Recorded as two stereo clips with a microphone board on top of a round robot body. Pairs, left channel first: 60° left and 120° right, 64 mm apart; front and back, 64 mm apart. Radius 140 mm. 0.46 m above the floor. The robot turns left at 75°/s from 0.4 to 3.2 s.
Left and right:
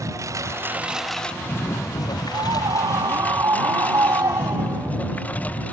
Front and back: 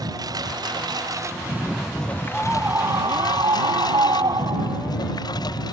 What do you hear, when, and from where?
0.0 s a lawn mower: 160° right; by 5.7 s 10° right
2.3 s a scream: 95° right; by 4.9 s 160° right